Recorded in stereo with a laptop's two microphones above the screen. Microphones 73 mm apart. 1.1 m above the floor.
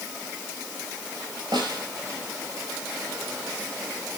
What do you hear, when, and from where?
1.5 s a snare drum: 85° right, 4.5 m